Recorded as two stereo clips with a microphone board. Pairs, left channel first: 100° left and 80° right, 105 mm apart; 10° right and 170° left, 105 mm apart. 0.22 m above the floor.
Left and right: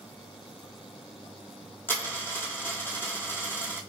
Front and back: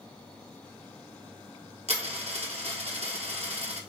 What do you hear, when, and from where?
1.9 s a dropped coin: 170° left, 1.3 m